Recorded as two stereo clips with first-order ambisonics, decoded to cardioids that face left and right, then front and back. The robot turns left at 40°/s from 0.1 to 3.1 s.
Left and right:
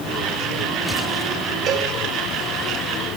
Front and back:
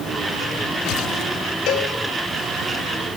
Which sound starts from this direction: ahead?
A cowbell, at 1.7 s.